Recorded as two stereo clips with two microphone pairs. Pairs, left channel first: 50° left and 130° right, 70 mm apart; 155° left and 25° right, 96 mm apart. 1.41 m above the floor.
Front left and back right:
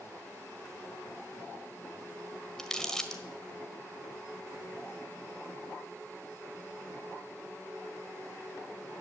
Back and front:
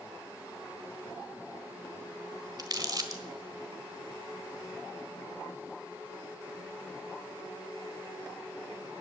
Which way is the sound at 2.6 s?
30° right.